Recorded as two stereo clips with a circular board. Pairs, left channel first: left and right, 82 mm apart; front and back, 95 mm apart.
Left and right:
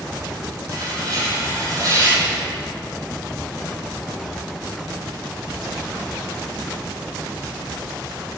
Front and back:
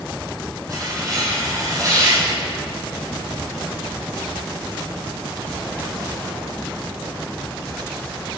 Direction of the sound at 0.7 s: 130° right.